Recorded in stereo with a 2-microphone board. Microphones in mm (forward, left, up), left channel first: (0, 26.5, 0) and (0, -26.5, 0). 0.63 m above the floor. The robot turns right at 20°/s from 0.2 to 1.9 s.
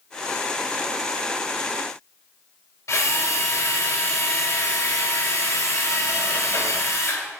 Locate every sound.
2.9 s a drill: 70° left (ahead or behind), 2.5 m